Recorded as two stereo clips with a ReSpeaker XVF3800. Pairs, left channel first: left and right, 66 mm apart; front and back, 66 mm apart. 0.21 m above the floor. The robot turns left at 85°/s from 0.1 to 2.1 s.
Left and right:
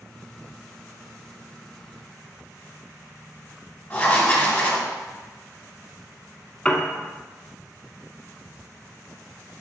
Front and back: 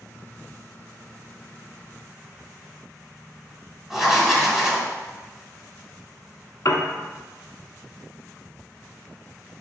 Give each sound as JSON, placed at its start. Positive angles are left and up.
{"t": 3.9, "sound": "writing", "azimuth_deg": 110, "distance_m": 1.2}
{"t": 6.7, "sound": "a piano", "azimuth_deg": 20, "distance_m": 0.6}